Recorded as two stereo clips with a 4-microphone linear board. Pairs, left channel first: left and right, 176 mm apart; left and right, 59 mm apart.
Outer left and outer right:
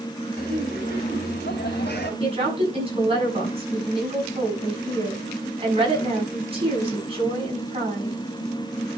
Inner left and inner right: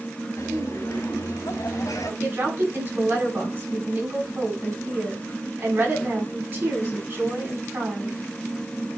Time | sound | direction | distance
0.4 | laughter | 65° left (ahead or behind) | 2.5 m
2.2 | a woman speaking | 35° right (ahead or behind) | 6.5 m